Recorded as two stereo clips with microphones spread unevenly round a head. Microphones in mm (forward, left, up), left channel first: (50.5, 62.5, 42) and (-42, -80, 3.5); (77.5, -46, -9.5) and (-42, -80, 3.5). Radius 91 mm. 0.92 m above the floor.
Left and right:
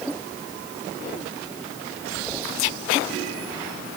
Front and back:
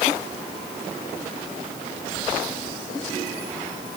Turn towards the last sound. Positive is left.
No sound to turn to.